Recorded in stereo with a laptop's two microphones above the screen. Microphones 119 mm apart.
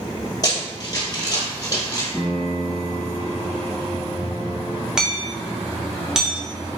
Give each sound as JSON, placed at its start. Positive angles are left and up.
{"t": 0.4, "sound": "running footsteps", "side_deg": 30, "distance_m": 1.2}
{"t": 2.1, "sound": "a piano", "side_deg": 15, "distance_m": 1.3}
{"t": 5.0, "sound": "hammering", "side_deg": -5, "distance_m": 0.5}